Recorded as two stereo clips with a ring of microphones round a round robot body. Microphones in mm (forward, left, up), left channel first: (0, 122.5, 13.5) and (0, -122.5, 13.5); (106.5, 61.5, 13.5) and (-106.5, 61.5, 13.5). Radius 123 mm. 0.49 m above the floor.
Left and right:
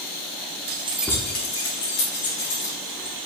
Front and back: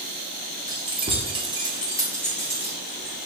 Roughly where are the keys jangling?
Right.